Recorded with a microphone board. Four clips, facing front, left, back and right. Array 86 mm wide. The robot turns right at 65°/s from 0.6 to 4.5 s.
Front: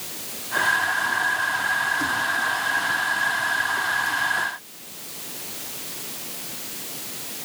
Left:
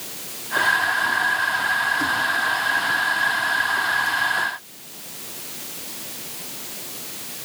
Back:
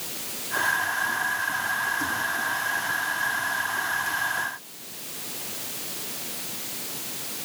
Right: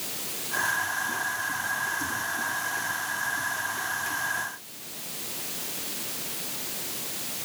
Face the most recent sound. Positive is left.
No sound to turn to.